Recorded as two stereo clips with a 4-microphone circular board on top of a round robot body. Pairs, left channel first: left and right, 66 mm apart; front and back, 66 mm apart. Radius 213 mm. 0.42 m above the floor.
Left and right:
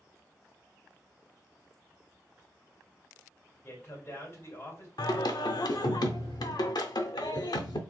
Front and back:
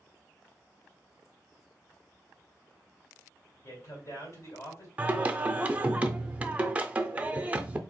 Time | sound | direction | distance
3.6 | a man speaking | 40° left | 3 m
5.0 | singing | 110° left | 0.6 m